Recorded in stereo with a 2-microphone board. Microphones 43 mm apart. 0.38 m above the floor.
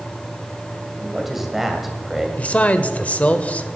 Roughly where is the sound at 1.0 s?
Centre.